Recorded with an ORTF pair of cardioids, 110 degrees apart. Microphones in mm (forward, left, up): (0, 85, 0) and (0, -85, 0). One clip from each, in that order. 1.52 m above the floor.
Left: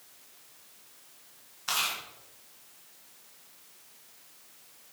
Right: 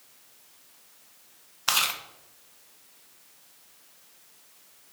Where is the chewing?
55° right, 1.5 m.